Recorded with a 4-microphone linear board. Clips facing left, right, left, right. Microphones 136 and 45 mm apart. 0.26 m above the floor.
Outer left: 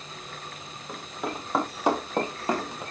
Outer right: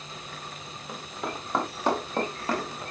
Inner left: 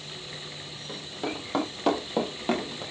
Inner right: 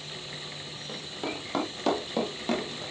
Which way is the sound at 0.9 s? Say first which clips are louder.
Outer left 2 dB, inner left 2 dB; centre (ahead or behind).